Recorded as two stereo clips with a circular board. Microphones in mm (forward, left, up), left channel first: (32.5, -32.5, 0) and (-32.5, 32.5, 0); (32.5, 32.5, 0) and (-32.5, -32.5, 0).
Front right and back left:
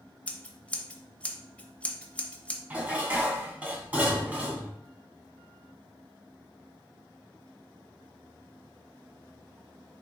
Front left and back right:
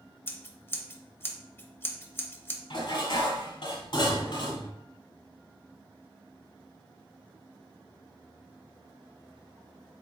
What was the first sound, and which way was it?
Scissors, 10° left.